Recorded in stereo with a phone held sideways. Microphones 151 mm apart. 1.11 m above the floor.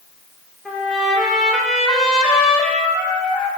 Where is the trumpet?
5° left (ahead or behind), 1.2 m.